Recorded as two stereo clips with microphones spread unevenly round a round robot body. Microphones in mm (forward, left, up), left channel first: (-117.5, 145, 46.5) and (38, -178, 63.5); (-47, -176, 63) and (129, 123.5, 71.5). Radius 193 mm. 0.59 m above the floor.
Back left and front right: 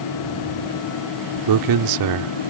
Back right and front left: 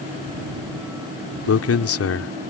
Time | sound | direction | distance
1.5 | a man speaking | 80° right | ?